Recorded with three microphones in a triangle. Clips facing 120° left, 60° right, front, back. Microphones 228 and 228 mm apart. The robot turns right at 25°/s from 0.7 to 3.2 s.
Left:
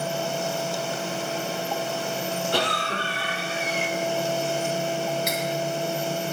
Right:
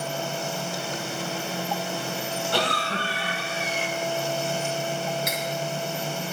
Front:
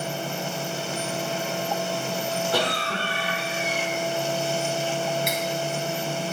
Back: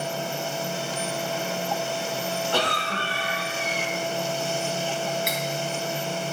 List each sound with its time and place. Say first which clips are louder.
2.5 s a cough: even, even; 75° left, 5.5 m; by 3.9 s 95° left, 5.5 m
5.3 s cutlery clinking: left 3 dB, front 2 dB; 90° left, 2 m